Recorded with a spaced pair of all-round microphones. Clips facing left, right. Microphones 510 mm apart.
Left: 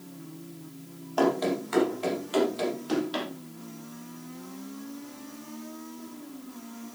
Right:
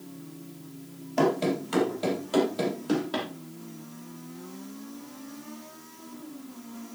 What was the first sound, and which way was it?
Running footsteps, 45° right (ahead or behind).